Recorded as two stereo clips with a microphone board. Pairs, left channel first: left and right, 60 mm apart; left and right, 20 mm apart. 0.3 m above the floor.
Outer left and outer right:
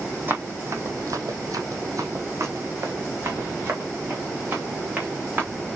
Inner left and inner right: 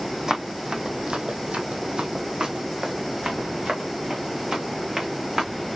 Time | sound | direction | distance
0.3 | running footsteps | 35° right (ahead or behind) | 0.8 m